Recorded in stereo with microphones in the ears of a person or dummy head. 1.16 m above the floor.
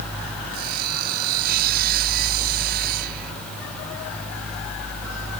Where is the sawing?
55° right (ahead or behind).